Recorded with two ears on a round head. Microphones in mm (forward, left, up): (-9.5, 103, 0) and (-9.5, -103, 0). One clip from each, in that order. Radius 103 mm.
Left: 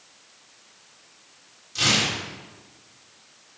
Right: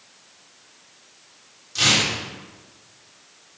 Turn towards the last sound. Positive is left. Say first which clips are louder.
# right 3 dB
turn(degrees=-10)  # may be behind; listen again after turning